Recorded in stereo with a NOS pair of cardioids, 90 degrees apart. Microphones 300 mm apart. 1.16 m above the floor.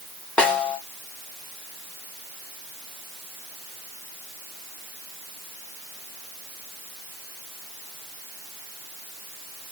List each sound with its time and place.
0.4 s a snare drum: 5° left, 2.0 m